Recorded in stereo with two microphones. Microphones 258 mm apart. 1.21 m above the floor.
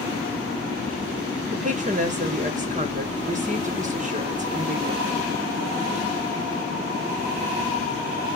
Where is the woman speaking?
30° right (ahead or behind), 1.0 m.